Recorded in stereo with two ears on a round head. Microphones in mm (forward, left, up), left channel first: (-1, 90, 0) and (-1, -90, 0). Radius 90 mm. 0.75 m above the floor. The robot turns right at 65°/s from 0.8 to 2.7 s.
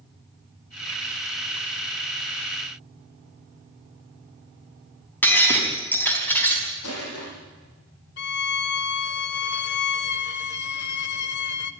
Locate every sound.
5.2 s breaking glass: 10° left (ahead or behind), 4 m
6.8 s crushing: 80° left, 9 m
8.2 s a violin: 55° left (ahead or behind), 1.0 m